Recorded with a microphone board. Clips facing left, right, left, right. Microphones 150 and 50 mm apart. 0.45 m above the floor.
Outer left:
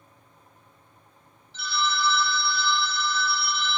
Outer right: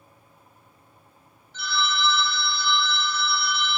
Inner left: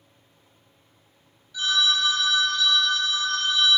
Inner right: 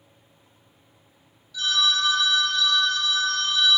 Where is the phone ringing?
30° left (ahead or behind), 0.7 m.